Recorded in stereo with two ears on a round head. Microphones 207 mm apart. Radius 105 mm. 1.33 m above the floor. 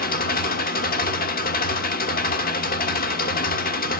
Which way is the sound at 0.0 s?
40° left (ahead or behind).